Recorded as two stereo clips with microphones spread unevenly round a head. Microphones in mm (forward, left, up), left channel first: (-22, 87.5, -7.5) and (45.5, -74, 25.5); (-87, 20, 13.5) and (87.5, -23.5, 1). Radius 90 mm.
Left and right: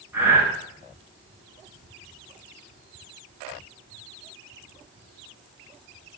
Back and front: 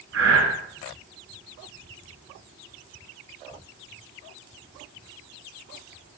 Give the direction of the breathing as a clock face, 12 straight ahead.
12 o'clock.